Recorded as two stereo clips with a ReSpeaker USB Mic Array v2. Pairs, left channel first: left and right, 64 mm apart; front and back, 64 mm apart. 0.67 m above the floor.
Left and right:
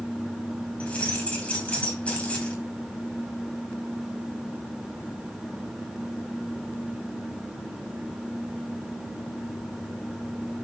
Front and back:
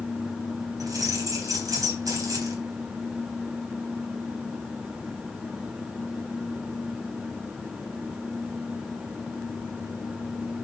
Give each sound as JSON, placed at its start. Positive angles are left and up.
{"t": 0.8, "sound": "keys jangling", "azimuth_deg": 160, "distance_m": 3.0}